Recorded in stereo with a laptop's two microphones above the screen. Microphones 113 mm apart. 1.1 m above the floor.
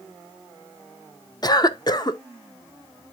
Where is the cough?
35° left (ahead or behind), 0.6 m.